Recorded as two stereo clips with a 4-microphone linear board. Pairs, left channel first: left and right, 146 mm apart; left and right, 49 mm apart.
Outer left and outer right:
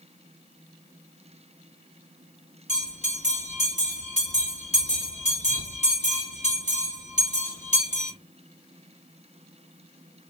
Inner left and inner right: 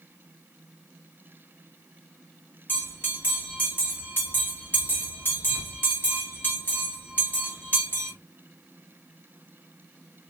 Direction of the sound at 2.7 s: 45° left (ahead or behind).